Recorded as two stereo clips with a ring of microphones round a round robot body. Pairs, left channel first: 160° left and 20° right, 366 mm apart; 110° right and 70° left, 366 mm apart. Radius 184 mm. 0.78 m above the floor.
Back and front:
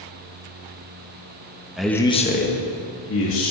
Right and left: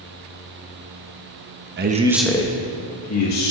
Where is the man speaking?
65° left, 1.1 m; by 3.5 s 150° right, 2 m.